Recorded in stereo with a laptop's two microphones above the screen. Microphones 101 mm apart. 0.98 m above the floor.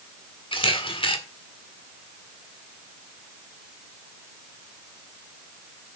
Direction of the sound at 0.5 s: 60° left (ahead or behind).